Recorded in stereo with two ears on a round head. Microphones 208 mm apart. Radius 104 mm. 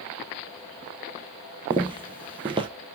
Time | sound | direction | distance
1.7 | footsteps | 25° right (ahead or behind) | 0.9 m